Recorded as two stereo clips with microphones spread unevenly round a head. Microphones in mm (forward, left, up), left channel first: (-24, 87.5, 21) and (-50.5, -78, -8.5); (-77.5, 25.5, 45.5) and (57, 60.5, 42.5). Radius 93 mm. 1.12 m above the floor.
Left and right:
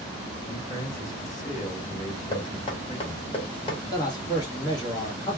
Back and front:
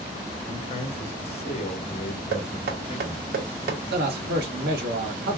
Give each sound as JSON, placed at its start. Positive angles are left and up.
{"t": 0.5, "sound": "a man speaking", "azimuth_deg": 150, "distance_m": 2.0}
{"t": 2.3, "sound": "knocking", "azimuth_deg": 25, "distance_m": 0.9}
{"t": 3.9, "sound": "a man speaking", "azimuth_deg": 10, "distance_m": 1.4}